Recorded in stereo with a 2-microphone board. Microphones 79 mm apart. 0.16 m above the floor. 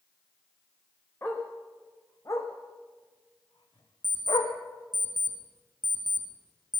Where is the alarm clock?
85° left, 5.5 m.